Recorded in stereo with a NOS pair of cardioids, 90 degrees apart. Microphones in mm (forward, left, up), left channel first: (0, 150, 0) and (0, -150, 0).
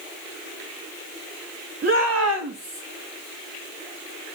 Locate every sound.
1.8 s a shout: 45° right, 2.5 m; by 2.8 s 65° right, 2 m